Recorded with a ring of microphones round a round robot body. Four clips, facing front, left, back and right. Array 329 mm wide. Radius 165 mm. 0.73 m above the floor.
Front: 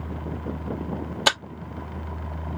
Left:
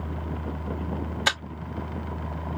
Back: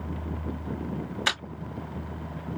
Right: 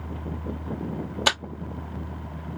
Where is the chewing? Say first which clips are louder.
Right 2 dB, front 7 dB; 30° right, 2 m.